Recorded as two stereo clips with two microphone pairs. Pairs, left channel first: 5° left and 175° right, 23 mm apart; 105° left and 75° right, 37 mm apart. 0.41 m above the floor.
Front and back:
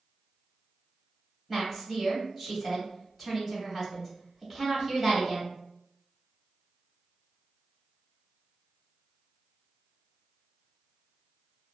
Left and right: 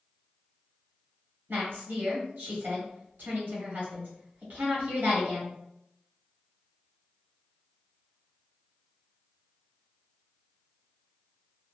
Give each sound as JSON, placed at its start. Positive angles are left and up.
{"t": 1.5, "sound": "a woman speaking", "azimuth_deg": -90, "distance_m": 1.9}